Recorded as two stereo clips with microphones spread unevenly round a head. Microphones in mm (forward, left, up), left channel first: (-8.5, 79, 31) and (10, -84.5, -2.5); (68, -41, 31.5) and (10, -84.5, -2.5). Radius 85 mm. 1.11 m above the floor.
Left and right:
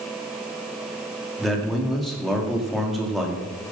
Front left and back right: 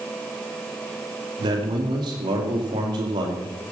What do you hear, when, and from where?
1.4 s a man speaking: 170° right, 2.5 m